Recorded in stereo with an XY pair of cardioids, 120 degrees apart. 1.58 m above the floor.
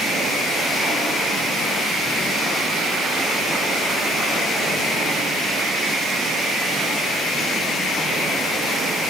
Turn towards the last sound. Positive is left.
No sound to turn to.